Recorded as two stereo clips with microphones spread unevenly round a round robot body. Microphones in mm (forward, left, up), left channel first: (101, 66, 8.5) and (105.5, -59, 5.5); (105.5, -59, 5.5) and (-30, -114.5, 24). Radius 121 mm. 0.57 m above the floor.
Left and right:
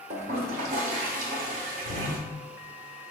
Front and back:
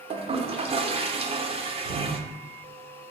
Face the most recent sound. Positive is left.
turn(degrees=-100)